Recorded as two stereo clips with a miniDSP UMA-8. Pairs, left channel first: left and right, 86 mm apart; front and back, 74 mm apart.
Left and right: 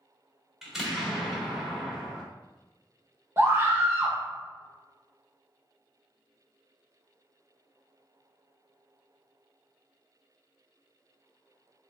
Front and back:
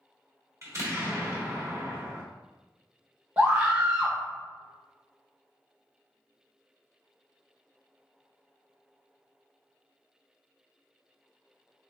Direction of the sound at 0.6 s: 175° right.